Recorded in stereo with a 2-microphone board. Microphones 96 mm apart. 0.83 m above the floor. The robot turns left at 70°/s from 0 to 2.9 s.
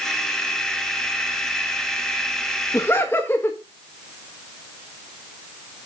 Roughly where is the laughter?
Left.